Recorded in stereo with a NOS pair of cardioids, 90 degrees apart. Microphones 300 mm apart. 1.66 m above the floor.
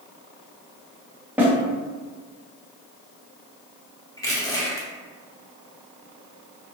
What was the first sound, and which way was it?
A snare drum, 5° right.